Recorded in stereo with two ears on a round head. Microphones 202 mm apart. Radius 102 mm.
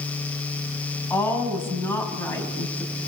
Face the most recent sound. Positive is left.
turn(degrees=10)  # may be behind; listen again after turning